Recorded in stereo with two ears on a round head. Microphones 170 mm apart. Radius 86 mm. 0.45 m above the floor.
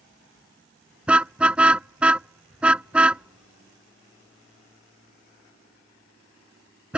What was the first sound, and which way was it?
A car horn, 5° right (ahead or behind).